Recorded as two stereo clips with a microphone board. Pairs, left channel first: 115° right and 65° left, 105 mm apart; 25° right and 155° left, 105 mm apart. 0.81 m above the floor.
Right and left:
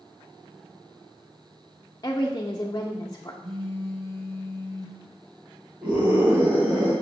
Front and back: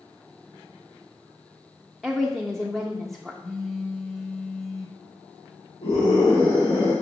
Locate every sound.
2.0 s a woman speaking: 110° right, 0.6 m
3.4 s a phone buzzing: 70° left, 2 m
5.8 s a scream: 10° right, 2.5 m